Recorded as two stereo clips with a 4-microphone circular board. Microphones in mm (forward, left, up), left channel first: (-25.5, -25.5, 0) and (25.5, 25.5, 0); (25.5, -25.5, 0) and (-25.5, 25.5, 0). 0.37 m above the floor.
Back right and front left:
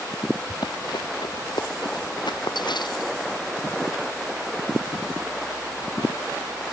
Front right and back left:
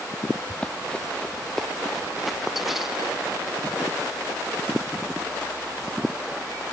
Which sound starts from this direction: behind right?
Running footsteps, at 0.5 s.